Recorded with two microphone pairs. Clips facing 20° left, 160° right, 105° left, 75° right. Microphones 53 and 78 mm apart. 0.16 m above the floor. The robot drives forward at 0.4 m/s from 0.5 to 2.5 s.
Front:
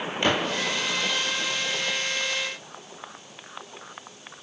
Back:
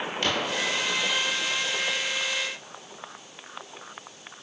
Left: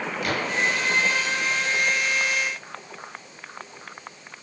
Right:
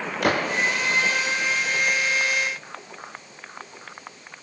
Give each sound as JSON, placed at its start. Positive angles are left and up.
{"t": 0.2, "sound": "a gunshot", "azimuth_deg": -50, "distance_m": 6.5}